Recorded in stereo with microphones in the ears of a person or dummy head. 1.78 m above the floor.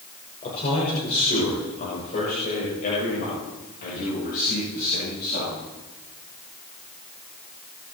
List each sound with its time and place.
0.4 s a man speaking: 35° left (ahead or behind), 6 m; by 5.7 s 55° left (ahead or behind), 11 m